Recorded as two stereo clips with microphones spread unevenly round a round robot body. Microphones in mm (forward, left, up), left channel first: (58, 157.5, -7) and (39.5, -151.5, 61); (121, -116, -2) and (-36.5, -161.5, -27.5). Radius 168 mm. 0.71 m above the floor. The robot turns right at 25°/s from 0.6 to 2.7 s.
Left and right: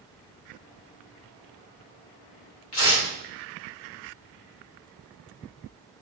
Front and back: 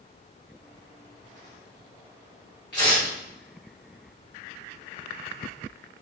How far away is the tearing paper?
About 1.6 m.